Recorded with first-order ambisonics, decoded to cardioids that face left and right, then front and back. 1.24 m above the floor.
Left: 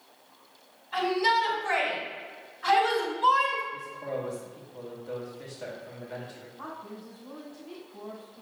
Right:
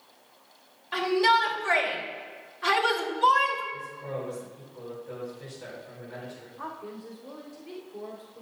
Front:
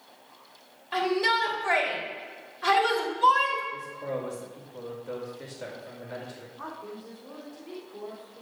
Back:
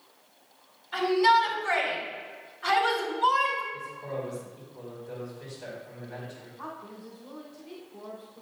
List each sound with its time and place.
0.9 s a shout: 45° right, 3 m
3.7 s a man speaking: 25° left, 2 m
6.6 s a woman speaking: 60° right, 3 m